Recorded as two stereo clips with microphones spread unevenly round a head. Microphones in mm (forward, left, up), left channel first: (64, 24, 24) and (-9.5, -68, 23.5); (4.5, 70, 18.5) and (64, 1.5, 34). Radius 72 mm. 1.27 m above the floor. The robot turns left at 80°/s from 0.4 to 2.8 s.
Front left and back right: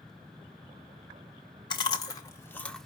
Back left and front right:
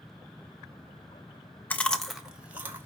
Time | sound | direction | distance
1.7 | chewing | 55° left | 0.9 m